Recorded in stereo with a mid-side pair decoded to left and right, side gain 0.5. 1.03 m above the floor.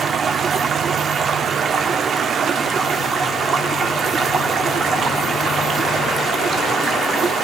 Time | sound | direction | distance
0.0 | running water | 45° right | 1.1 m